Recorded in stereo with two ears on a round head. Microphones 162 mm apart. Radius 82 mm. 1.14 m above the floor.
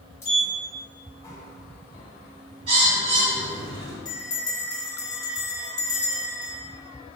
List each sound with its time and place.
0.2 s a sliding door: 15° left (ahead or behind), 1.0 m
2.7 s a bird: 70° right (ahead or behind), 1.7 m
4.0 s a bell: 20° left (ahead or behind), 0.8 m